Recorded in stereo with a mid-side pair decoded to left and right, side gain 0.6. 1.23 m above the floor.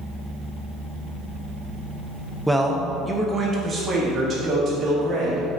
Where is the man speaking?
Straight ahead, 0.9 m; by 5.5 s 45° right, 3.5 m.